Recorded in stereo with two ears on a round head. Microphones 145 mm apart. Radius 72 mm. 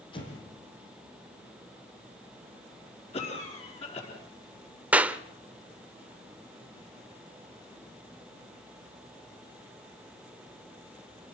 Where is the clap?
10° right (ahead or behind), 0.8 m.